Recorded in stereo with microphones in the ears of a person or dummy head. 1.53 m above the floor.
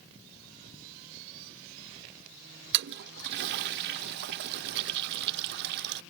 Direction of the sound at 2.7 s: 60° right (ahead or behind).